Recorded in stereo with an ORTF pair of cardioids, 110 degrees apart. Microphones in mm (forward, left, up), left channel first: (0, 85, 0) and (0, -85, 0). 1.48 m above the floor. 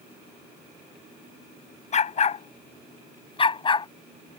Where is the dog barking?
40° left; by 3.9 s 30° left.